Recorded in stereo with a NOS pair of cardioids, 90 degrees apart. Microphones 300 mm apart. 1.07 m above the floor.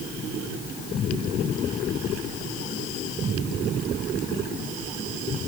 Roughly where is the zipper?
I don't hear a zipper.